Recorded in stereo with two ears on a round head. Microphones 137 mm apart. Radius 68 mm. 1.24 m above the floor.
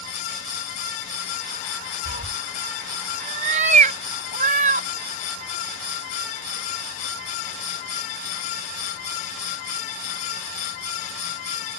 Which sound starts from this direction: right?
A cat meowing, at 2.0 s.